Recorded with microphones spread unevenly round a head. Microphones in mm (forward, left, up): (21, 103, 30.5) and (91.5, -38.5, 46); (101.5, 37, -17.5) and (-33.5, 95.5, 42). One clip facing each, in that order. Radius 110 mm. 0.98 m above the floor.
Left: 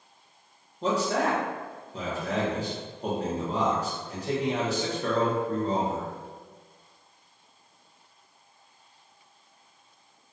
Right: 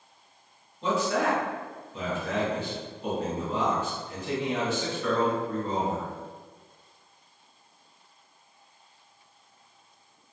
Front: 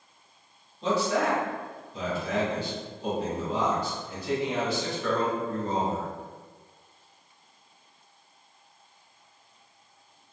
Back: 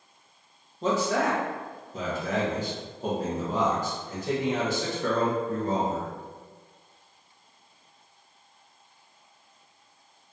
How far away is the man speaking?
About 0.9 m.